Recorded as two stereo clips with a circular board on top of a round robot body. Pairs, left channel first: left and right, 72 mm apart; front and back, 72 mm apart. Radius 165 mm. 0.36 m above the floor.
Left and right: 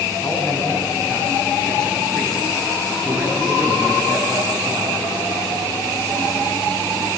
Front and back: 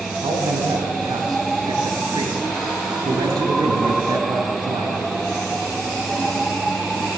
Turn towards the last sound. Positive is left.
turn(degrees=-170)